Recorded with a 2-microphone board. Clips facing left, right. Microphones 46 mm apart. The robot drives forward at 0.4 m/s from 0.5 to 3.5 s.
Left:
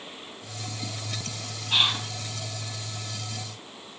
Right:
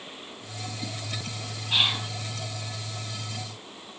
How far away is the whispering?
About 6.5 m.